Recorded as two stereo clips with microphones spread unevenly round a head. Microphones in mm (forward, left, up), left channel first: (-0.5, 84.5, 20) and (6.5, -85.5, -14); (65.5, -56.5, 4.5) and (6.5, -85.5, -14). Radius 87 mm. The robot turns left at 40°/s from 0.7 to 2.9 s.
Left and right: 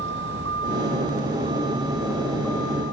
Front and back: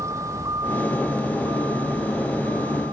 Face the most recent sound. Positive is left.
turn(degrees=160)